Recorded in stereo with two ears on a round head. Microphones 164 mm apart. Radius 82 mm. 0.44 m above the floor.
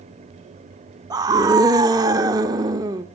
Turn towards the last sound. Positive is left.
turn(degrees=-20)  # may be behind; listen again after turning